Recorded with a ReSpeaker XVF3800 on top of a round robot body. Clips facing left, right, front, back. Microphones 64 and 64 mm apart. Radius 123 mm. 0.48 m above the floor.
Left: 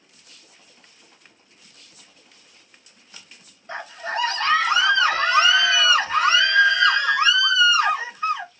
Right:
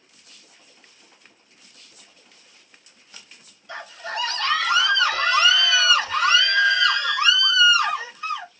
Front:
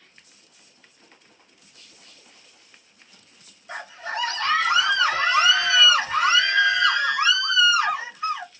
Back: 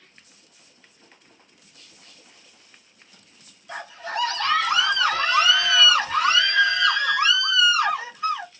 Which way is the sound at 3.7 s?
50° left.